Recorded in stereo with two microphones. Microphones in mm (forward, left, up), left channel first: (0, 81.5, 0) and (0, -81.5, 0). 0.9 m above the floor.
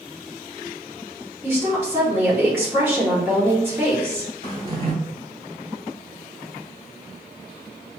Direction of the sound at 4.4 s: 35° right (ahead or behind).